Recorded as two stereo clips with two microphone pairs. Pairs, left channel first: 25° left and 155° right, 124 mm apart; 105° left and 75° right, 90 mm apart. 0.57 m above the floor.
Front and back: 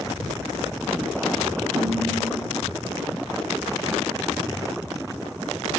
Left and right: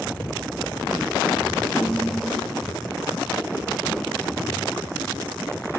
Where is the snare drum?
170° right, 1.4 m.